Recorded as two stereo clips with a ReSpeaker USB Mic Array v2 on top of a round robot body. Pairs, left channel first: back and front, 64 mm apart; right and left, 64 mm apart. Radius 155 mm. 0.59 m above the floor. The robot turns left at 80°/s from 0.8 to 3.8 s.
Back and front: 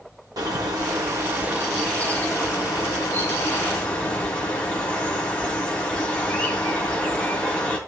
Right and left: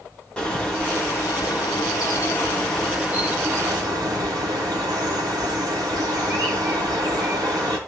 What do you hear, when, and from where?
0.4 s a bird: 15° right, 3 m; by 7.8 s 105° left, 3 m